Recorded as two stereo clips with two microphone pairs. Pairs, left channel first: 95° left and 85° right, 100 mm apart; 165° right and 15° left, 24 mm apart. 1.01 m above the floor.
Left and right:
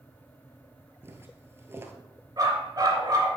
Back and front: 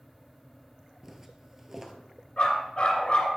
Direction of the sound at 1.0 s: 55° right.